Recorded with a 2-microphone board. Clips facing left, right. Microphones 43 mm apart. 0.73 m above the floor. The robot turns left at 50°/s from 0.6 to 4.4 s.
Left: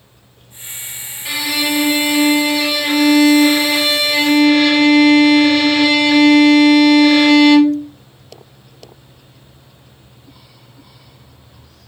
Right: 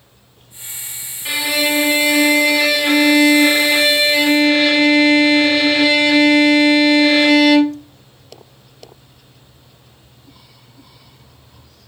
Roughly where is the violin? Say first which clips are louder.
Right 1 dB; ahead.